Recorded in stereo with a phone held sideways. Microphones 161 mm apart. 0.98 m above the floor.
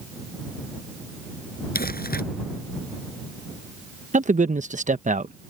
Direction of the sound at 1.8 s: 70° left (ahead or behind).